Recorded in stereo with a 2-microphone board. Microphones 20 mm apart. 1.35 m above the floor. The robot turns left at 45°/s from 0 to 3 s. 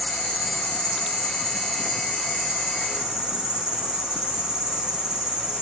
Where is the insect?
85° left, 1.9 m; by 5.6 s 50° right, 1.9 m.